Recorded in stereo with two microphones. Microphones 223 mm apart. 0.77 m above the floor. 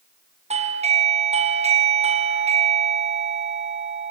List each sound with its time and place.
0.5 s a doorbell: 30° right (ahead or behind), 0.9 m